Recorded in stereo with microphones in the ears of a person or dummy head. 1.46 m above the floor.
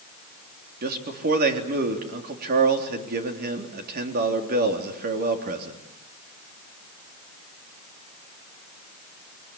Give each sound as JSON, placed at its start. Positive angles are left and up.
{"t": 0.8, "sound": "a man speaking", "side_deg": -55, "distance_m": 3.5}